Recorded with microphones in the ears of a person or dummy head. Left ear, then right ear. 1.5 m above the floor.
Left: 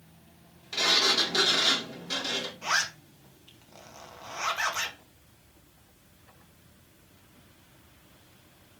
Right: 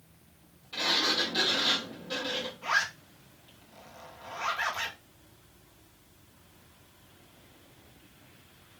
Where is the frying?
No frying in this recording.